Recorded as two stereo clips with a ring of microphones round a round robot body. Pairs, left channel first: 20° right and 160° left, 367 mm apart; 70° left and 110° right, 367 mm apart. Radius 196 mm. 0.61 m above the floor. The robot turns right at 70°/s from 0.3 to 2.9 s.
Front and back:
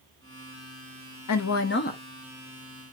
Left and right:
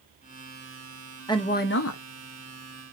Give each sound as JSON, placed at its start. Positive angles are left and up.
{"t": 1.3, "sound": "a woman speaking", "azimuth_deg": -10, "distance_m": 0.7}